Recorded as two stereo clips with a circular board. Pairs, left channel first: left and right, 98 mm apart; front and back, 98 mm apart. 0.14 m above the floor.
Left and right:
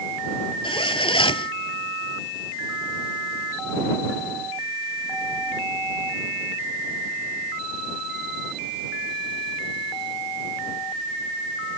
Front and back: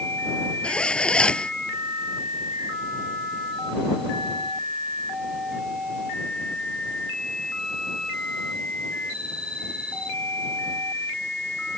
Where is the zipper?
80° left.